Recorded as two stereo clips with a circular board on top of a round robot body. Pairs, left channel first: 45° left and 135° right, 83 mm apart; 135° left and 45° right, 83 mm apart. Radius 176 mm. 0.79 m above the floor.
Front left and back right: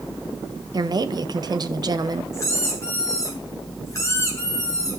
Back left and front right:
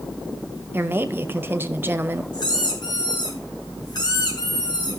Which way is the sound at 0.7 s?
105° right.